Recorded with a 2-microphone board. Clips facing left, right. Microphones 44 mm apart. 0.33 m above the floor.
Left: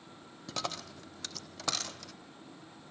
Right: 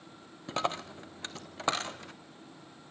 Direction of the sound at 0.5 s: 30° right (ahead or behind).